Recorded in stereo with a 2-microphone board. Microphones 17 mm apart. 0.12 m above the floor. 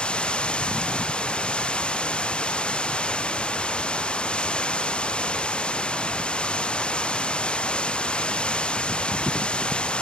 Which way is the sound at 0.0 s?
90° left.